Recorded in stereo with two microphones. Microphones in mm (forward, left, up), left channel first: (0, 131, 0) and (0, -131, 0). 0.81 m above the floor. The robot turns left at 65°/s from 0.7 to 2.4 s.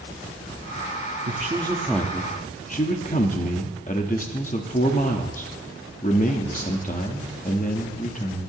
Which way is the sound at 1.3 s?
140° right.